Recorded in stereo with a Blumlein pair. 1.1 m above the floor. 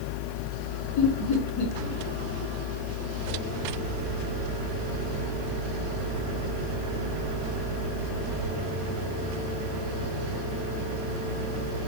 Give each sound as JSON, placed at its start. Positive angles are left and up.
{"t": 1.0, "sound": "laughter", "azimuth_deg": 35, "distance_m": 1.1}